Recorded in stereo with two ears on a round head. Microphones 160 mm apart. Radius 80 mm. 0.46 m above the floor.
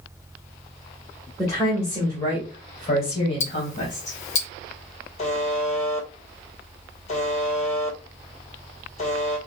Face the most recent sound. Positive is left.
turn(degrees=40)  # may be behind; listen again after turning